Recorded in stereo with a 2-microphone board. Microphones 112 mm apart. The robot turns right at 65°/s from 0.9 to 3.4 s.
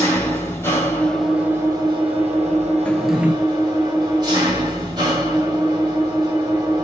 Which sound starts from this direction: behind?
A drawer, at 2.9 s.